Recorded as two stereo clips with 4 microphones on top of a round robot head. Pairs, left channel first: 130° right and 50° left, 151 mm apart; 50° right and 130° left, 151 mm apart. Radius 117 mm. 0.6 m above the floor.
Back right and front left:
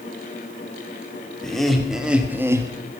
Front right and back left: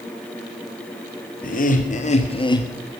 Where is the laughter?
40° right, 2.5 m; by 2.7 s 5° left, 1.4 m.